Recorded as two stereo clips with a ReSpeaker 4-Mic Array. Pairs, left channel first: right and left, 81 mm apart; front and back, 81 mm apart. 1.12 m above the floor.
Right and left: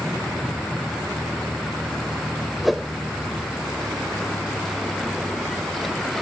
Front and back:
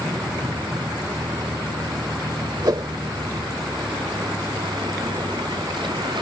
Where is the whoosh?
Straight behind.